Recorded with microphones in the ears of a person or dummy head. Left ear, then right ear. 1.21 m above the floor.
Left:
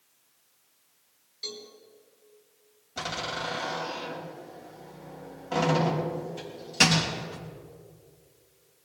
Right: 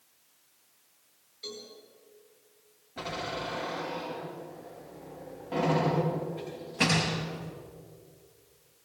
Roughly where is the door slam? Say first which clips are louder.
Left 3 dB; left.